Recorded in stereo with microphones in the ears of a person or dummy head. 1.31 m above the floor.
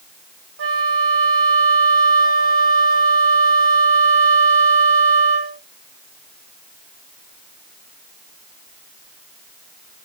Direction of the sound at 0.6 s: 60° right (ahead or behind).